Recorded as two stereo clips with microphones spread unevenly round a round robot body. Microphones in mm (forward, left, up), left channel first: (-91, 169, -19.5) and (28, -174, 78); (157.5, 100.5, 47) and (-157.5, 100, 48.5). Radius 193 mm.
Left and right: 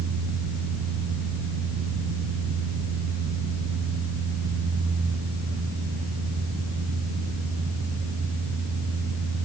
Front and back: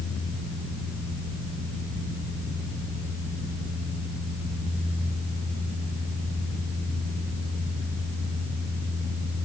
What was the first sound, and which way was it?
Only background noise.